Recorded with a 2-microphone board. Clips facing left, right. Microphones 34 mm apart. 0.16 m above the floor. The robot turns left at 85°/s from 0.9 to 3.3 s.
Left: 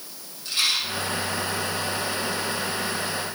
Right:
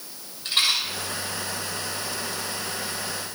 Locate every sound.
0.5 s a rattle: 55° right (ahead or behind), 6 m